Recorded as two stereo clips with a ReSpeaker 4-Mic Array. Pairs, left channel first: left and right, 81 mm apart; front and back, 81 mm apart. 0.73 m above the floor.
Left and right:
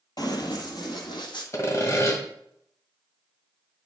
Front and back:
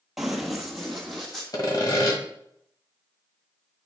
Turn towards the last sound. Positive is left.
turn(degrees=35)